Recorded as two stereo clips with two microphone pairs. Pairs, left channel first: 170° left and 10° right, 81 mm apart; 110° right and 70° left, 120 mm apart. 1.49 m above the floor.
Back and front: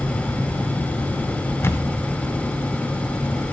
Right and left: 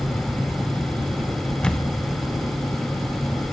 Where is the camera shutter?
170° left, 0.5 m.